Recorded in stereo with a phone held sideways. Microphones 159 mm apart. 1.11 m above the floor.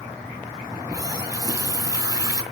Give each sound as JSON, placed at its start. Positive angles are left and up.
{"t": 0.7, "sound": "a running tap", "side_deg": -25, "distance_m": 2.5}